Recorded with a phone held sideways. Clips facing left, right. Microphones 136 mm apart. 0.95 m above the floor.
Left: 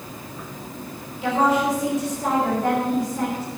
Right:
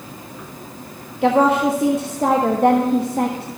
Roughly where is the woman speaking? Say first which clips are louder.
Right 5 dB; right.